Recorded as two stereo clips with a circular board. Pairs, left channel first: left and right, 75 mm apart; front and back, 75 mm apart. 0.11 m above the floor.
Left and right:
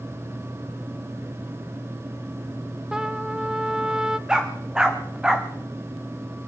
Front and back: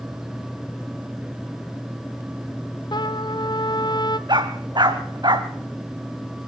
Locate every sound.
2.9 s a trumpet: 10° right, 0.6 m
4.3 s a dog barking: 170° right, 2.5 m